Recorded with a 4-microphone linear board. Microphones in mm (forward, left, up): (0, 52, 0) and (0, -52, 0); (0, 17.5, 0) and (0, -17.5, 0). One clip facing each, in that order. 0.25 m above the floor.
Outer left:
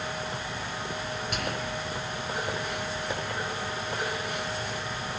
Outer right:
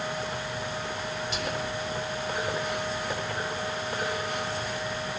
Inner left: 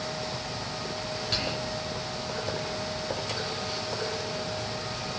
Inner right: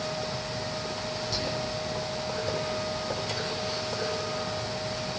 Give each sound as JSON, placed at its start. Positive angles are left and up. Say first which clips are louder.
{"t": 1.3, "sound": "whispering", "louder": "even, inner left 2 dB", "side_deg": 55, "distance_m": 3.0}